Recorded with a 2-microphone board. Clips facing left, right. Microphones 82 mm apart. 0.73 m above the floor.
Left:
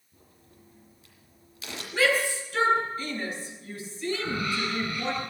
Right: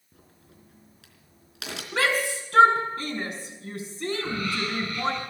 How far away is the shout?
About 6 m.